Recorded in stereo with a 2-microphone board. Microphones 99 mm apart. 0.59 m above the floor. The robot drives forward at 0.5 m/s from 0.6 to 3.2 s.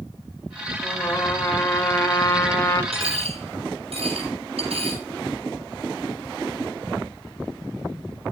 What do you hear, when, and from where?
0.8 s a trumpet: 20° left (ahead or behind), 2.5 m; by 2.8 s 30° left (ahead or behind), 1.9 m
2.9 s a dropped coin: 80° right, 8 m